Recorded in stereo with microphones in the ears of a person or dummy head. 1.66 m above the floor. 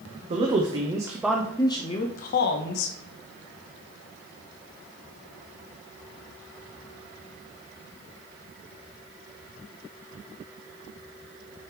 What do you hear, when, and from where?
0.3 s a man speaking: 35° right (ahead or behind), 0.9 m; by 3.0 s 70° left (ahead or behind), 0.9 m